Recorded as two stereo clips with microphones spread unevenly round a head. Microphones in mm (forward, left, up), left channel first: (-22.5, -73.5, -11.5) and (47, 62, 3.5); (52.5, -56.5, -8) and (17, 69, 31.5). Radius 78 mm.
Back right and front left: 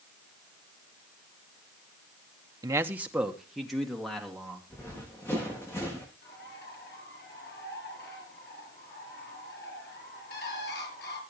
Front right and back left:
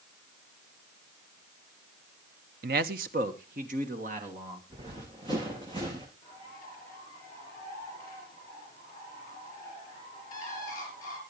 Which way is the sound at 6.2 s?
150° right.